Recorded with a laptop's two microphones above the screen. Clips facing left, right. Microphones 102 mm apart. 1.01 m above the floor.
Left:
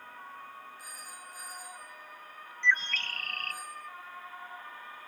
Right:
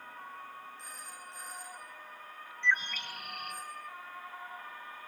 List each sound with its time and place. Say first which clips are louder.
0.8 s a phone ringing: even; 10° left (ahead or behind), 9.5 m
2.6 s a bird: left 2 dB; 15° right (ahead or behind), 0.7 m